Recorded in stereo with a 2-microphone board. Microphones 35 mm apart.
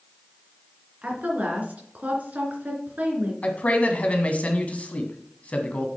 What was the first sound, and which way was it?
A woman speaking, 45° right (ahead or behind).